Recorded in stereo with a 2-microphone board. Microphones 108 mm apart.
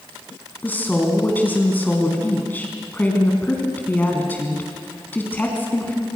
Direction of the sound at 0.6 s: 20° left (ahead or behind).